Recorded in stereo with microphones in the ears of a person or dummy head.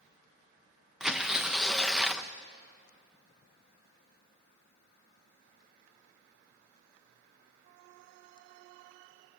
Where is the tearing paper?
Centre (ahead or behind), 0.7 m.